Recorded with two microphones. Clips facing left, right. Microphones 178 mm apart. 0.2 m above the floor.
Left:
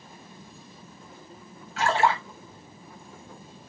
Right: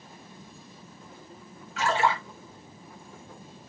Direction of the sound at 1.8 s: 35° left (ahead or behind).